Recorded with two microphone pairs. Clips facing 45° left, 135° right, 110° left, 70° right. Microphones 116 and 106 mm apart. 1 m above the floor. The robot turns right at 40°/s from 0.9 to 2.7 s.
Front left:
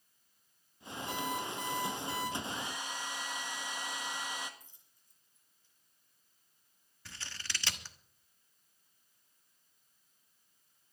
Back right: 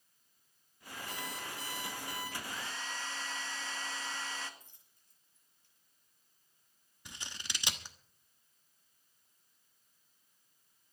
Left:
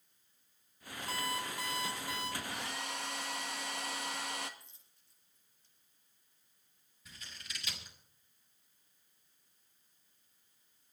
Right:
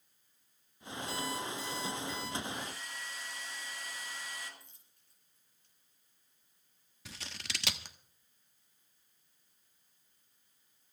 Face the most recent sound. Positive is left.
turn(degrees=-65)